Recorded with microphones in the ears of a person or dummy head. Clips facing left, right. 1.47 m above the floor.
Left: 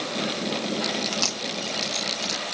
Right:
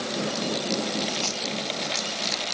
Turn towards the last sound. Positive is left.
turn(degrees=60)  # may be behind; listen again after turning